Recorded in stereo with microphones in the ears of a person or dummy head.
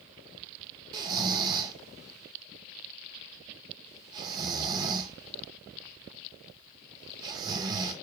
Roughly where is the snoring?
Right.